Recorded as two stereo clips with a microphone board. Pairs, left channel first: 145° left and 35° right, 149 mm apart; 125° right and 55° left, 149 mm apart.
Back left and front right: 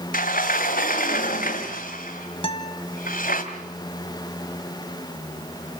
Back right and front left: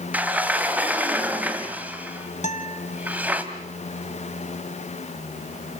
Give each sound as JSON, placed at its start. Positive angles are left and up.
{"t": 0.1, "sound": "a sliding door", "azimuth_deg": 135, "distance_m": 1.9}
{"t": 2.4, "sound": "a guitar", "azimuth_deg": -160, "distance_m": 1.4}